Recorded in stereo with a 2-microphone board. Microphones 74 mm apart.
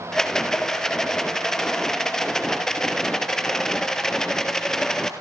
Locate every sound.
0.1 s a rattle: 5° left (ahead or behind), 2.0 m